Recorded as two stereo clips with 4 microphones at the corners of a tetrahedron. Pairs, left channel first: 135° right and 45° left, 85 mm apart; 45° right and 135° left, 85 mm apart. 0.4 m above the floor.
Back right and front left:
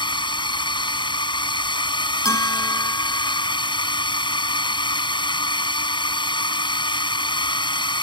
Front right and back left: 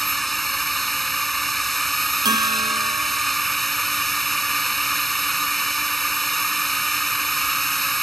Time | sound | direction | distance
0.0 | a drone | 130° right | ?
2.2 | a bell | 175° left | ?